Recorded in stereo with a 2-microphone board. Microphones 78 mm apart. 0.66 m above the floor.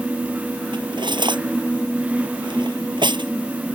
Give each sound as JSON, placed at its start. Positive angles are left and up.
{"t": 0.7, "sound": "cutlery clinking", "side_deg": -80}